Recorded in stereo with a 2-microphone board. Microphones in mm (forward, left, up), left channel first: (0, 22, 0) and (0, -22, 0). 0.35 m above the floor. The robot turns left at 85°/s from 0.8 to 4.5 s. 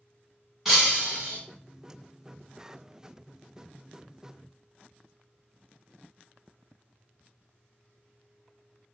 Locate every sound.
0.7 s breaking glass: 10° right, 1.6 m; by 1.4 s 60° right, 1.6 m